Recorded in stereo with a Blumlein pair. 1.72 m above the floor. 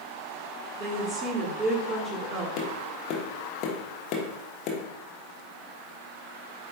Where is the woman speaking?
20° right, 2 m.